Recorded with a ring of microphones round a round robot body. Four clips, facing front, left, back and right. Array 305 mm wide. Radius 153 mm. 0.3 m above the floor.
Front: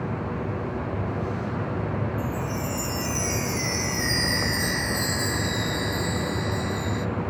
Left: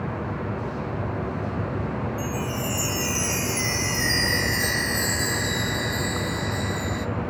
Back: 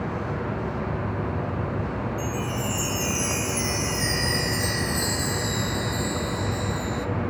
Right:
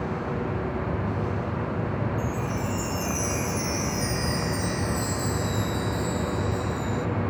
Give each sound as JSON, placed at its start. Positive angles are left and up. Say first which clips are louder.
{"t": 2.2, "sound": "a chime", "louder": "left 1 dB, even", "azimuth_deg": 80, "distance_m": 0.9}